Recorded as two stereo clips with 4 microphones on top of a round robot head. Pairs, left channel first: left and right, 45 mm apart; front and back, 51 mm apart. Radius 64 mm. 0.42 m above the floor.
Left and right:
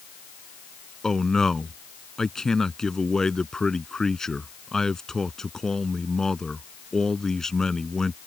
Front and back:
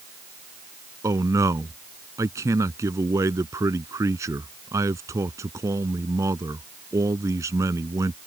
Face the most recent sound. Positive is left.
turn(degrees=165)